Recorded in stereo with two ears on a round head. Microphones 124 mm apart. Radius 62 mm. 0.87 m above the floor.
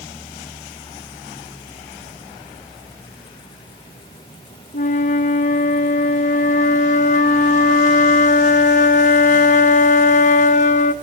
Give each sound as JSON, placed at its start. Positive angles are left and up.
{"t": 4.7, "sound": "a flute", "side_deg": 55, "distance_m": 0.9}